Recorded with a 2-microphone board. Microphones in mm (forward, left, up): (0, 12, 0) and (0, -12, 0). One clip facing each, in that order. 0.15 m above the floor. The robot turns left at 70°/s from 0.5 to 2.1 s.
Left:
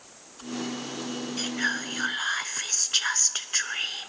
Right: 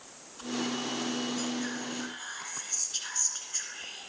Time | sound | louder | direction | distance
1.4 | whispering | left 6 dB | 120° left | 1.5 m